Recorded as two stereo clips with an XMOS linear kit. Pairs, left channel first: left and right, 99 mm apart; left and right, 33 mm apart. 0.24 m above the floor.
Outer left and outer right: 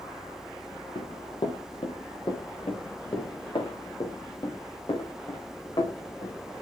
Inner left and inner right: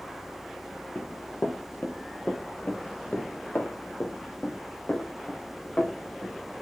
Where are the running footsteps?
60° left (ahead or behind), 4 m; by 6.6 s 50° left (ahead or behind), 9.5 m.